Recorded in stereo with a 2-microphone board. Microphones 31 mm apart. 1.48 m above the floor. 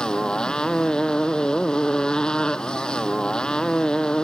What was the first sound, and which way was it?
A motorcycle, 30° left (ahead or behind).